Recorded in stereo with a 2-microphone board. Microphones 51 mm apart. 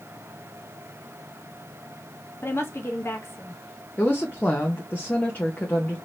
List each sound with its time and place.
2.4 s a woman speaking: 55° left (ahead or behind), 1.1 m
4.0 s a woman speaking: 35° left (ahead or behind), 1.0 m